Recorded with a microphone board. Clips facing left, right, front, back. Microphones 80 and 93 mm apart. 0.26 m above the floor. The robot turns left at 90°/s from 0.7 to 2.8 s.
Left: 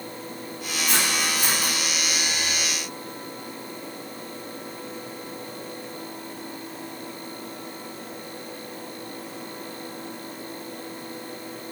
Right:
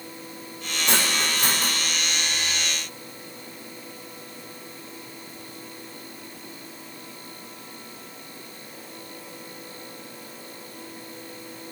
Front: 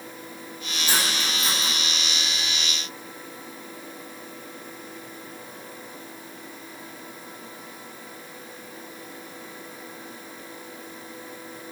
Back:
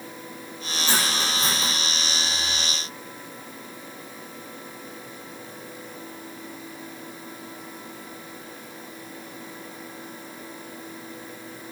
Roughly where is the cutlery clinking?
Right.